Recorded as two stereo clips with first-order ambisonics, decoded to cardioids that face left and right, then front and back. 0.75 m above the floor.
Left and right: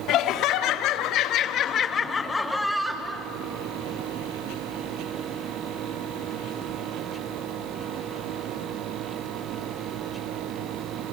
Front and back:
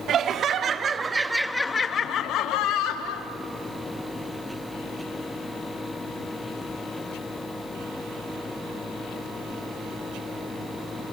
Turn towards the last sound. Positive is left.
turn(degrees=-10)